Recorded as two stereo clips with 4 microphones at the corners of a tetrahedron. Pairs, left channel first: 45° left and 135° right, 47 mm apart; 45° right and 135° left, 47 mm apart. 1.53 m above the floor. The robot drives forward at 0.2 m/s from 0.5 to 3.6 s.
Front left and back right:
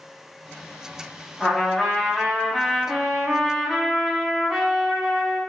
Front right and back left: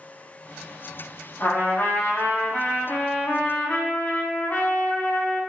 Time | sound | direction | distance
1.4 | a trumpet | 30° right | 1.1 m